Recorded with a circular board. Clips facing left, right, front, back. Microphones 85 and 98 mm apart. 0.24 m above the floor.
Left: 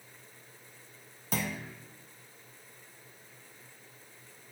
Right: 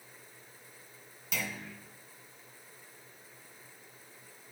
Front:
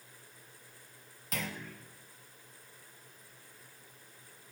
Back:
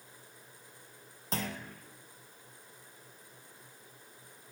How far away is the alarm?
I don't hear an alarm.